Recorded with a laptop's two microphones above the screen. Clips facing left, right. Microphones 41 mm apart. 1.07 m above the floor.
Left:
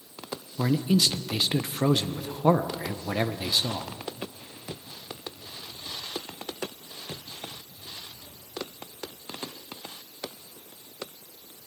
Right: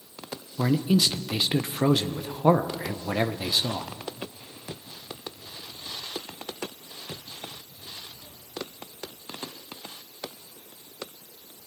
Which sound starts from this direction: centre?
A man speaking, at 0.6 s.